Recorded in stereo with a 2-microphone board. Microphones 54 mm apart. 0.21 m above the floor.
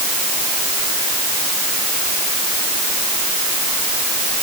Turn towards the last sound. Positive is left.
No sound to turn to.